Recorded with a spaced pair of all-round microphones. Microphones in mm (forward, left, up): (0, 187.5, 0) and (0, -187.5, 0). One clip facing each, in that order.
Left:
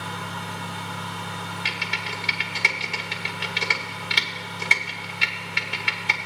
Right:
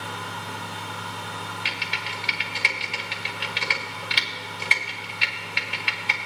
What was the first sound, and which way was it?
A fan, 60° left (ahead or behind).